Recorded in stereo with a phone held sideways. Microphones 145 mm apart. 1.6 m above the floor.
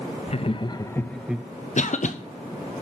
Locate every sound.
0.3 s laughter: 45° left (ahead or behind), 0.7 m; by 1.5 s 15° right (ahead or behind), 0.5 m
1.8 s a cough: 55° left (ahead or behind), 0.8 m